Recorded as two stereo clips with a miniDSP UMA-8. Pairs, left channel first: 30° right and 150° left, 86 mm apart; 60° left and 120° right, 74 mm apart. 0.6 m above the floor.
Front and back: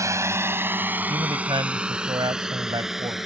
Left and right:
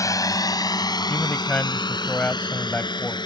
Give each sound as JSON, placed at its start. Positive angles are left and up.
{"t": 0.0, "sound": "a drone", "azimuth_deg": 100}
{"t": 1.1, "sound": "a man speaking", "azimuth_deg": 125}